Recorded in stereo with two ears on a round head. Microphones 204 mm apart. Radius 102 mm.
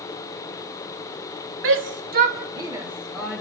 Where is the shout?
60° right (ahead or behind), 2 m; by 3.4 s 5° left (ahead or behind), 2.5 m.